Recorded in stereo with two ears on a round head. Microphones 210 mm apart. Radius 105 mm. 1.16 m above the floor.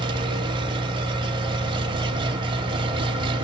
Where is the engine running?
20° right (ahead or behind), 1.6 m.